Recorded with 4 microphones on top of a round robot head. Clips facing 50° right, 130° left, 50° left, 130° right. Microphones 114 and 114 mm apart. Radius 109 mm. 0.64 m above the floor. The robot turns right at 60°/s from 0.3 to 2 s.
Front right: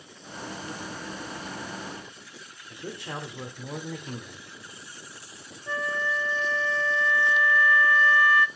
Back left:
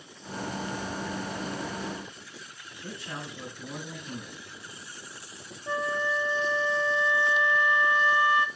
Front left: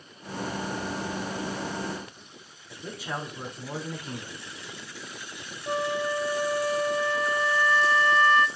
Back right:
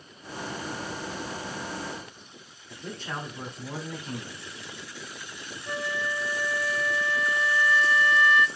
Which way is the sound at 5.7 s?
70° left.